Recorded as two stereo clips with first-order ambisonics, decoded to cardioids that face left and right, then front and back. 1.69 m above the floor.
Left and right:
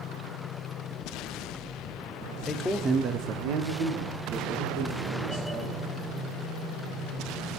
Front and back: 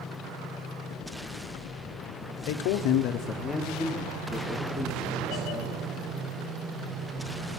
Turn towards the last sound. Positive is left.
turn(degrees=-100)